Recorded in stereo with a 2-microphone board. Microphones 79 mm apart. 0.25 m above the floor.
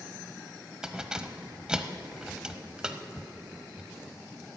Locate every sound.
0.8 s keys jangling: 10° right (ahead or behind), 0.9 m